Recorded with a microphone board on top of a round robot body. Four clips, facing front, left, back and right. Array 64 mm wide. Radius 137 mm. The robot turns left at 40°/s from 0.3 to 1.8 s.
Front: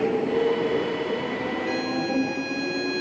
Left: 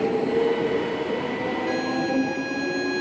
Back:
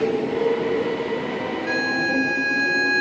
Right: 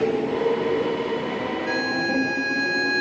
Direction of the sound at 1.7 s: 150° right.